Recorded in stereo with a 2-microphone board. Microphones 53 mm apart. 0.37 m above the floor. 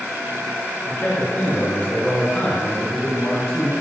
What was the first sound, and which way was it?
A man speaking, 35° left (ahead or behind).